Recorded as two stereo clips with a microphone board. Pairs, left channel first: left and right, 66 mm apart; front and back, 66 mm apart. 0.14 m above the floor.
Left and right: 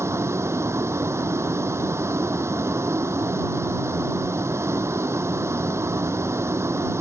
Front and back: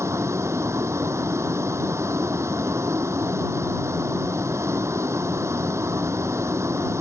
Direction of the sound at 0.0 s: 140° right.